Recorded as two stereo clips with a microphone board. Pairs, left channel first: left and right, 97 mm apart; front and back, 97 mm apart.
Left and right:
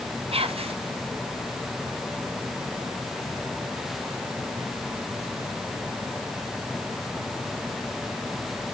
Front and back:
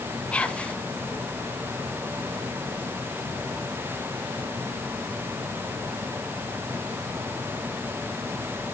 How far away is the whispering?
About 1.1 m.